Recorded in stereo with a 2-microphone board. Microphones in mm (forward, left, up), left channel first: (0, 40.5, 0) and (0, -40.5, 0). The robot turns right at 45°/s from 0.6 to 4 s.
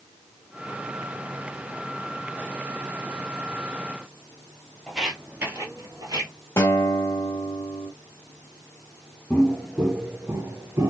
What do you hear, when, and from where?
4.9 s footsteps: 5° left (ahead or behind), 1.5 m; by 6.3 s 55° right (ahead or behind), 1.7 m
6.6 s a guitar: 30° left (ahead or behind), 1.0 m
9.3 s footsteps: 15° left (ahead or behind), 1.1 m; by 10.9 s 40° right (ahead or behind), 1.2 m